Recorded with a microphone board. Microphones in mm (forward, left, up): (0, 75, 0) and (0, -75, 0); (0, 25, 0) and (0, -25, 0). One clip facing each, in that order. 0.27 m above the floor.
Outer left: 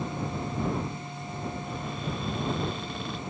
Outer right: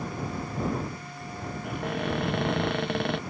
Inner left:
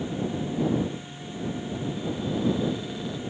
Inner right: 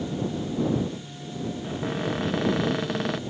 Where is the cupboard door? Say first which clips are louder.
Outer right 4 dB, inner right 2 dB; 70° right (ahead or behind).